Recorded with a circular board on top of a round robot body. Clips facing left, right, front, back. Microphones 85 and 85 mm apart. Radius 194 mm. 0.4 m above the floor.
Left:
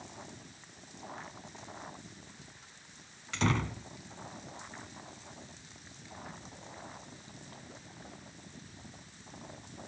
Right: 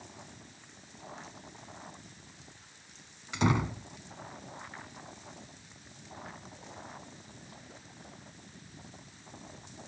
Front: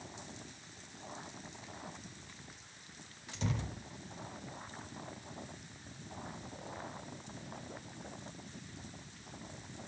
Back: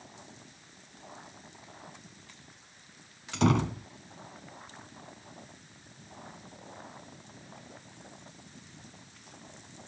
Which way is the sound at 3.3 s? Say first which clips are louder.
Right 3 dB, back 14 dB; 165° right.